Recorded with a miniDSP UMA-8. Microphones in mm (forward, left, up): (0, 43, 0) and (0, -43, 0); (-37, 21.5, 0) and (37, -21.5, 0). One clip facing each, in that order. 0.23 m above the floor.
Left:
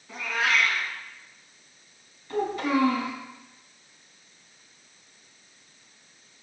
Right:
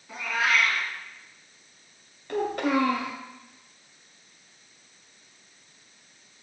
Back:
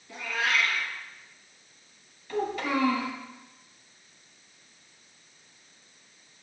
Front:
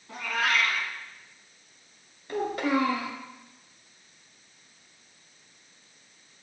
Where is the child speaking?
70° right, 1.9 m.